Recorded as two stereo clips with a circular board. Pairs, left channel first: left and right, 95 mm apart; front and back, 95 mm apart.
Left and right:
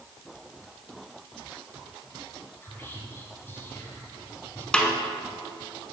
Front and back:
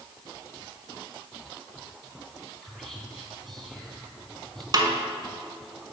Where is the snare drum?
170° left, 1.1 m.